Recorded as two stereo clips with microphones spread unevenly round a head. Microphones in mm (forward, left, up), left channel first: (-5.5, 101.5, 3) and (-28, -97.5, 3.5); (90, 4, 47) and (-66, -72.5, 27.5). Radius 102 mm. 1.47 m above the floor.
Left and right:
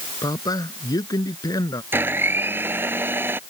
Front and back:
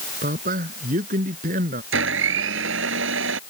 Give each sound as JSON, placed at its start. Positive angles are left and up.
{"t": 0.2, "sound": "a man speaking", "azimuth_deg": 155}
{"t": 1.9, "sound": "a blender", "azimuth_deg": -175}